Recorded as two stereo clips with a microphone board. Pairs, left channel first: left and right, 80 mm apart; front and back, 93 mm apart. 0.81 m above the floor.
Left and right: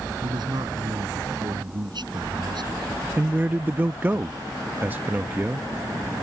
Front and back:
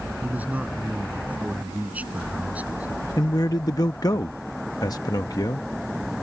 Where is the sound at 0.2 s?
105° right.